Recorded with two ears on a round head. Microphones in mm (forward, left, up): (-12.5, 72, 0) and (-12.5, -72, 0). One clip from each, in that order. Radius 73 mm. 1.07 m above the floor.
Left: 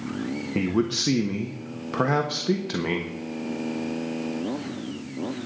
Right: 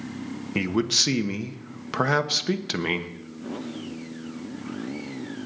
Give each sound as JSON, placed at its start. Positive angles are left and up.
{"t": 0.6, "sound": "a man speaking", "side_deg": -55, "distance_m": 1.3}